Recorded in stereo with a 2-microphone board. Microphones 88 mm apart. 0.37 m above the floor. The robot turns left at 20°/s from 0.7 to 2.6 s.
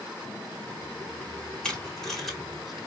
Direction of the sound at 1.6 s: 10° left (ahead or behind).